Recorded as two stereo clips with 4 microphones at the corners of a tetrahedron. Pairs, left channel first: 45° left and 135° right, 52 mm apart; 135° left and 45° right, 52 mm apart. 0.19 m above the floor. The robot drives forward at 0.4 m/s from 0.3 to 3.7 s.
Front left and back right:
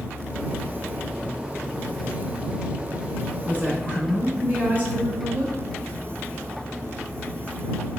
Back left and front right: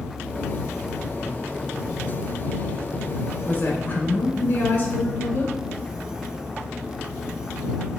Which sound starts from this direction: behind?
A woman speaking, at 3.5 s.